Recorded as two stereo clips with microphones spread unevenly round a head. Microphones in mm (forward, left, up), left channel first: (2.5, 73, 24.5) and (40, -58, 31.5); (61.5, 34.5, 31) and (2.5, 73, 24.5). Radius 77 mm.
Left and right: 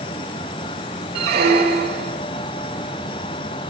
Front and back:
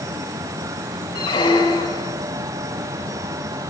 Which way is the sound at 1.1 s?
65° right.